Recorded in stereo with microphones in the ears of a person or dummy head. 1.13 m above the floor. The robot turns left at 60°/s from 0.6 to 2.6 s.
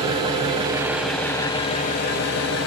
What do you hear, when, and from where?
0.0 s an engine running: 150° right, 2.5 m; by 2.7 s 90° left, 2.5 m